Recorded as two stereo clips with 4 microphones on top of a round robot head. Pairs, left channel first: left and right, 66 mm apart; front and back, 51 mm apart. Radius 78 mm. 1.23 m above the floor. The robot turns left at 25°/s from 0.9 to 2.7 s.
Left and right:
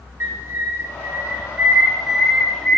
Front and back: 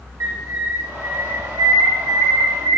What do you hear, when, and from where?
0.2 s a bird: 140° right, 1.6 m; by 2.8 s 175° left, 1.6 m